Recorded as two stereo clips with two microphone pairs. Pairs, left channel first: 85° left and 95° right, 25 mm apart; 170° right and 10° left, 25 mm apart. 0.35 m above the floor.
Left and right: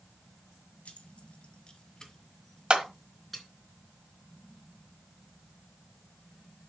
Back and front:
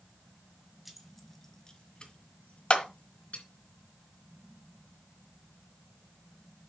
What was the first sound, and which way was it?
Keys jangling, 90° left.